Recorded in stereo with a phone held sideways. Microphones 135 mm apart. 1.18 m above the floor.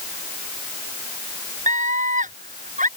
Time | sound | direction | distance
1.7 | a scream | 60° right (ahead or behind) | ?